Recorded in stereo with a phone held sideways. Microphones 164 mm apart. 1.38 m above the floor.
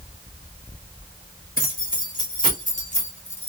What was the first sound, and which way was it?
Keys jangling, 55° left (ahead or behind).